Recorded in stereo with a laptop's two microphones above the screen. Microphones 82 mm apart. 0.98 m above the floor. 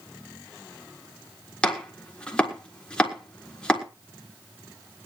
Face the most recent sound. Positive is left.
turn(degrees=10)  # may be behind; listen again after turning